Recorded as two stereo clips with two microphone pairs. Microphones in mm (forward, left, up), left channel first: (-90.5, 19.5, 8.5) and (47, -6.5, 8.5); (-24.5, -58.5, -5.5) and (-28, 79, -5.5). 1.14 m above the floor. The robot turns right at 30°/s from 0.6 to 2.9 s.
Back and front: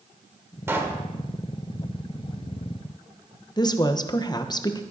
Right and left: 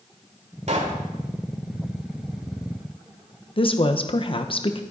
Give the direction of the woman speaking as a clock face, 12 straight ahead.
4 o'clock.